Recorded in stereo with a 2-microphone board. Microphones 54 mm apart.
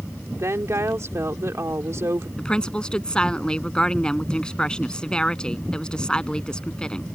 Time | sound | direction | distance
0.4 | a woman speaking | 60° right (ahead or behind) | ?
2.4 | a woman speaking | 15° left (ahead or behind) | ?